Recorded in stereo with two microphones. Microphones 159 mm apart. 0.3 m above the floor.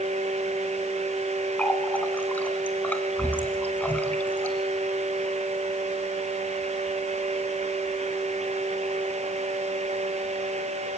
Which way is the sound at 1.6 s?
10° left (ahead or behind).